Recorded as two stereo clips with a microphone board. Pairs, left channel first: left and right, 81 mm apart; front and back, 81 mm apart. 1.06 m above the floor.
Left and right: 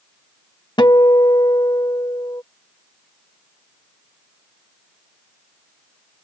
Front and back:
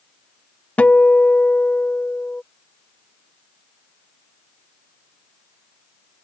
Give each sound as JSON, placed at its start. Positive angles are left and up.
{"t": 0.8, "sound": "a guitar", "azimuth_deg": 70}